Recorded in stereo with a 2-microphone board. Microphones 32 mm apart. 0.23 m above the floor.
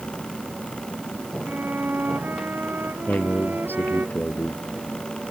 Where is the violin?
85° right.